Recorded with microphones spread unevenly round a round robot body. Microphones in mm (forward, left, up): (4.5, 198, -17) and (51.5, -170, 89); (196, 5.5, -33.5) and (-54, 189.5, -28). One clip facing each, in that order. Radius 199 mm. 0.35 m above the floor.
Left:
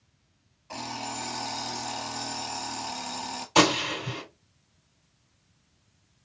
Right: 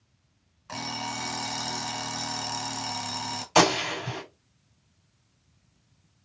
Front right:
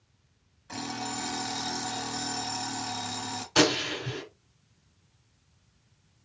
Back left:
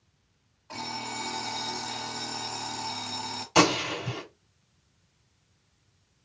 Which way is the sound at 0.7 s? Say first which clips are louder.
Right 1 dB, front right 4 dB; 90° right.